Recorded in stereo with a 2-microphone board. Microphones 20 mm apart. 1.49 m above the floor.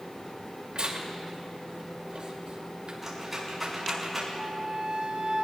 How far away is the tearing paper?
About 2.5 m.